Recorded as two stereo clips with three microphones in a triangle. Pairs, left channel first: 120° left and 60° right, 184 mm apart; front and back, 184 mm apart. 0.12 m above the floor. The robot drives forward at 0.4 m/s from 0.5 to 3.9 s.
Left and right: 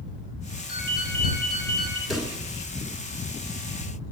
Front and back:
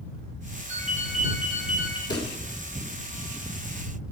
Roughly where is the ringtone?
Behind left.